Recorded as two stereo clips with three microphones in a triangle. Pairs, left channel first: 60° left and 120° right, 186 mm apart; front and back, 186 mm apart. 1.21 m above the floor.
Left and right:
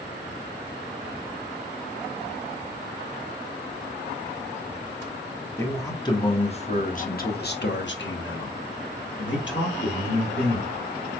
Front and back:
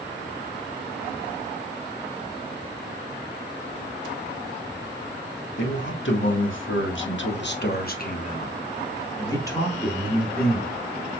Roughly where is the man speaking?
Ahead.